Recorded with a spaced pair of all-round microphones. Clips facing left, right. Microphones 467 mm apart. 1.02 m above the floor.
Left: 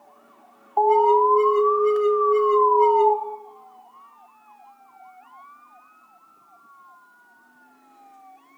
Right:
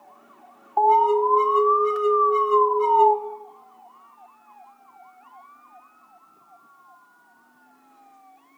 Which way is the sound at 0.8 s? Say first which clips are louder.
Left 3 dB; 25° right (ahead or behind).